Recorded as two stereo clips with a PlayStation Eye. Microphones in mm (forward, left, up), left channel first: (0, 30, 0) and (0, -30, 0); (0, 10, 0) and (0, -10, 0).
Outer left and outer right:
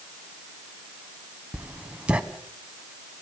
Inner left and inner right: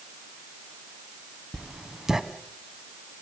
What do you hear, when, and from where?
1.5 s writing: 20° right (ahead or behind), 1.6 m